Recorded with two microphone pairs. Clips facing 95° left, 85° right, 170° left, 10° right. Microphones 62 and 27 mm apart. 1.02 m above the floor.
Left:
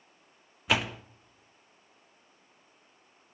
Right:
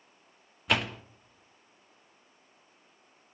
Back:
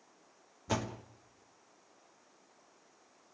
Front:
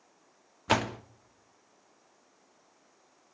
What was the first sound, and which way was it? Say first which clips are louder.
A door slam: even, front 8 dB; 10° left.